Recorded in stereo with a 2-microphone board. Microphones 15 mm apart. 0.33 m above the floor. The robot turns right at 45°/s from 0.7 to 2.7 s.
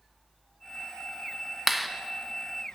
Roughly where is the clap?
Centre.